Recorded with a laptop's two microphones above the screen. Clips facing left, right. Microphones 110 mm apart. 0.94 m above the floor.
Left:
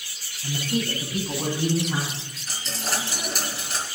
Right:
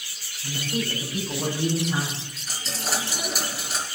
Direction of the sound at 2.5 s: Centre (ahead or behind).